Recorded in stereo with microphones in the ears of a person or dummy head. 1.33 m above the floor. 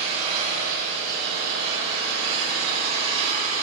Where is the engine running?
40° right (ahead or behind), 9.5 m.